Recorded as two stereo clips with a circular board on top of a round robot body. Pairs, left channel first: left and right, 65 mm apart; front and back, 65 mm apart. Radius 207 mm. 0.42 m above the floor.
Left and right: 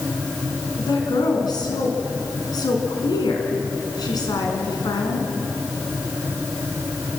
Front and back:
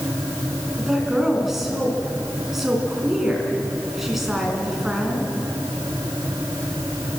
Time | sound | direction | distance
0.8 | a woman speaking | 90° left | 6 m